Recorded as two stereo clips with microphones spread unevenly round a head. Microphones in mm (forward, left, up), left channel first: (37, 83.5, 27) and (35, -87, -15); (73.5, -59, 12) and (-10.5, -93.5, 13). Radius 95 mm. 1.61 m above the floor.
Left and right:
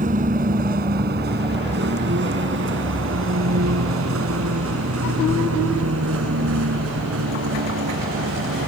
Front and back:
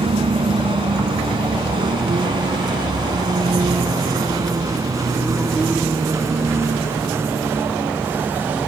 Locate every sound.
0.0 s a vehicle: 145° right; by 8.7 s 90° right